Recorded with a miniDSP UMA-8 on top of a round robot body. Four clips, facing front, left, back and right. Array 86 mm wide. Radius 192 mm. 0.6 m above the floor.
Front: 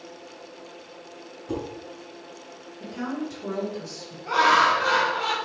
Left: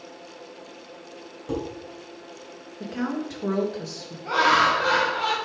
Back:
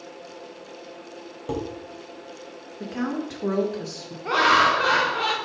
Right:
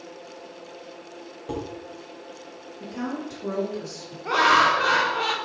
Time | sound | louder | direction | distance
1.5 | dishes clattering | left 2 dB, back 2 dB | 170° right | 3 m
2.8 | a woman speaking | left 3 dB, back 3 dB | 150° left | 2.0 m
4.2 | laughter | right 1 dB, even | 145° right | 2.5 m